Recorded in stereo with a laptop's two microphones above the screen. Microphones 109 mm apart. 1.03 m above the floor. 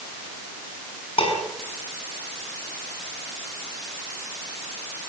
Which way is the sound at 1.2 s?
60° left (ahead or behind).